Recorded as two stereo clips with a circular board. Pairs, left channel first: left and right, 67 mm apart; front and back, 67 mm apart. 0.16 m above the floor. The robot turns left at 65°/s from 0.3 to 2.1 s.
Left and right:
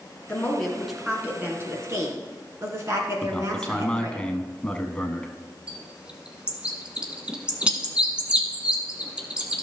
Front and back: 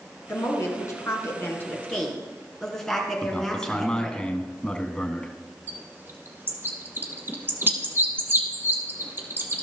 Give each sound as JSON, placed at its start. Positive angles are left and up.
{"t": 0.3, "sound": "a woman speaking", "azimuth_deg": 35, "distance_m": 2.0}
{"t": 3.2, "sound": "a man speaking", "azimuth_deg": 45, "distance_m": 1.0}
{"t": 5.7, "sound": "a bird", "azimuth_deg": -155, "distance_m": 1.2}